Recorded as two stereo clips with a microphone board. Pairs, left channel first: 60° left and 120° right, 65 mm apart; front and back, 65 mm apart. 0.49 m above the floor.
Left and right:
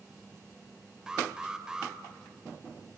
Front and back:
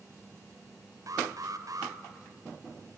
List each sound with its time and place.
1.1 s an alarm: 160° left, 1.5 m